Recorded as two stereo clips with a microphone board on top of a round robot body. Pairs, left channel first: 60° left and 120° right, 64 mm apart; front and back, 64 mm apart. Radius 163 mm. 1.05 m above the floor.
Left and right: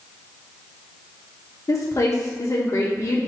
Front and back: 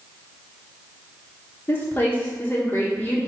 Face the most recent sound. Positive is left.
turn(degrees=45)